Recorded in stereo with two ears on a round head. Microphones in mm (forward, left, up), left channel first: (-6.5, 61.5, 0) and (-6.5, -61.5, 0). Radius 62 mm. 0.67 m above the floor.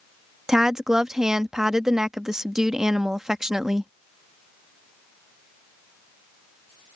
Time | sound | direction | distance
0.5 | a woman speaking | 5° right (ahead or behind) | ?